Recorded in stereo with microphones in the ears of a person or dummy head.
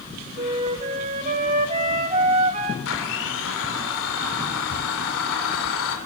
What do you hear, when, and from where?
0.4 s a flute: 35° right (ahead or behind), 2.5 m
2.9 s a blender: 80° left, 4.5 m